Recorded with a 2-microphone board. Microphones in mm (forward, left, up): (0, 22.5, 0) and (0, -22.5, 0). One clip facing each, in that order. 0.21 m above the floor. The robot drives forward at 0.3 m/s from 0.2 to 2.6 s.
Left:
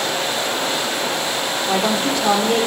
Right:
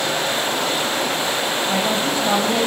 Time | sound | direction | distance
1.7 | a woman speaking | 65° left (ahead or behind) | 6.5 m